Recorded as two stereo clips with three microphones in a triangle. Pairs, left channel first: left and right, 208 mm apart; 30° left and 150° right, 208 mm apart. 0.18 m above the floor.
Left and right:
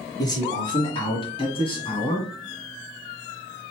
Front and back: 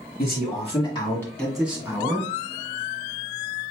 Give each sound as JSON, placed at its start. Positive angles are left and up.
{"t": 0.2, "sound": "a man speaking", "azimuth_deg": 30, "distance_m": 2.0}